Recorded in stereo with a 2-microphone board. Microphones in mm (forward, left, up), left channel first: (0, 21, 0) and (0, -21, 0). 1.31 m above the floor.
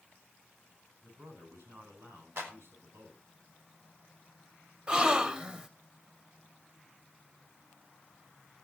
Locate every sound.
1.0 s a man speaking: 75° right (ahead or behind), 9 m
2.4 s a clap: 70° right (ahead or behind), 3.5 m
4.9 s a gasp: 25° right (ahead or behind), 1.0 m